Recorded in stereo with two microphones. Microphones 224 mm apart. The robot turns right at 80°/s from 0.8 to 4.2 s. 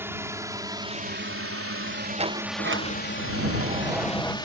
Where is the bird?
I don't hear a bird.